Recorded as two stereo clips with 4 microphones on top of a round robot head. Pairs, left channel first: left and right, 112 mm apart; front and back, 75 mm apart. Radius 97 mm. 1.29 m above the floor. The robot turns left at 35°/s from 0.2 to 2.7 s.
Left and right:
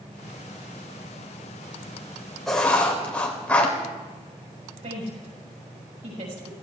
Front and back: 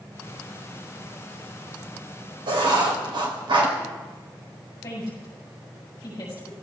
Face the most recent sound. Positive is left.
turn(degrees=-60)